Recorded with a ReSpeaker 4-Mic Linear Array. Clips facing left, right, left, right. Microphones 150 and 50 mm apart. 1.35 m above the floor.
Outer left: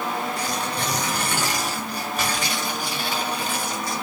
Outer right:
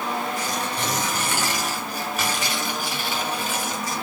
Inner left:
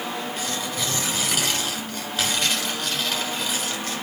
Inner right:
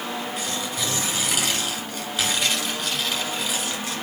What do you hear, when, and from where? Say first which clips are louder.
0.4 s tearing paper: even, even; 5° right (ahead or behind), 9 m